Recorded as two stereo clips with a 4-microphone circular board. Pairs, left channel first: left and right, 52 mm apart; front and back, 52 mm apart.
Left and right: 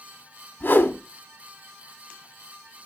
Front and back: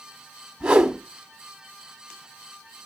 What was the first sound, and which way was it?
A whoosh, 110° left.